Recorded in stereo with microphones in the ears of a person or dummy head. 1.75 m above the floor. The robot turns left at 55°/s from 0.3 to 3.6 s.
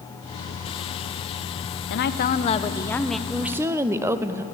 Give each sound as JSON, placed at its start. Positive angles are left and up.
{"t": 1.9, "sound": "a woman speaking", "azimuth_deg": 65, "distance_m": 1.0}
{"t": 3.3, "sound": "a woman speaking", "side_deg": 0, "distance_m": 0.9}